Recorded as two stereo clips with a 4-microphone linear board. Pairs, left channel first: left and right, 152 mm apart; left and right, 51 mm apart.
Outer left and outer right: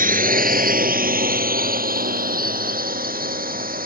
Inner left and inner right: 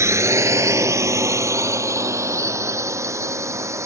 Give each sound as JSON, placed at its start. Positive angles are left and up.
{"t": 0.0, "sound": "a drone", "side_deg": -65}